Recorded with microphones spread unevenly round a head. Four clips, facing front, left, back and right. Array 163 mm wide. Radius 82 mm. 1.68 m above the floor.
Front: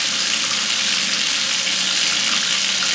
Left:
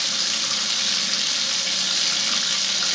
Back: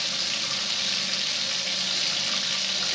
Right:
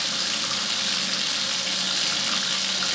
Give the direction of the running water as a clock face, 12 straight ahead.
12 o'clock.